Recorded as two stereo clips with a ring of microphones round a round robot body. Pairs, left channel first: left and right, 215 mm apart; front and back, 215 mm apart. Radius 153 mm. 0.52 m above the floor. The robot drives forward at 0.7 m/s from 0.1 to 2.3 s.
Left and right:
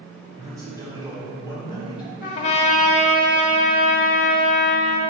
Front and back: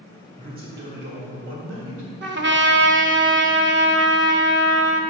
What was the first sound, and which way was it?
A man speaking, 155° right.